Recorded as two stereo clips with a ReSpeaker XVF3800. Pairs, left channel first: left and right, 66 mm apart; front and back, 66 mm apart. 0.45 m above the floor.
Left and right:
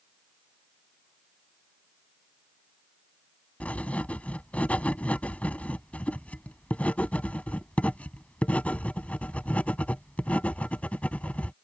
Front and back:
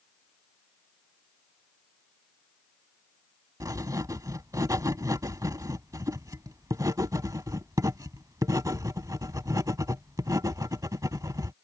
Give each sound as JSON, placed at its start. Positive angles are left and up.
{"t": 3.6, "sound": "writing", "azimuth_deg": 155}